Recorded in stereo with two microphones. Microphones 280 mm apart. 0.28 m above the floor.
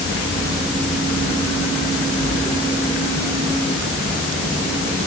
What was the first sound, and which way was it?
Only background noise.